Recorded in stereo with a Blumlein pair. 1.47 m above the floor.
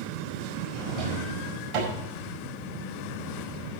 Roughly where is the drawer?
Ahead right.